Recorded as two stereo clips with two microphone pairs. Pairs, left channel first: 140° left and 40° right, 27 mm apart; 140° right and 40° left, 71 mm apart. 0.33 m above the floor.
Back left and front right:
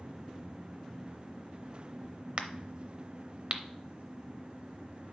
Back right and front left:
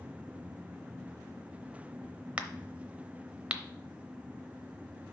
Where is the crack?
25° right, 0.7 m.